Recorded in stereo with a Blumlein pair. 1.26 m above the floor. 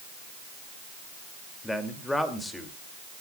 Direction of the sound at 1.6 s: 5° left.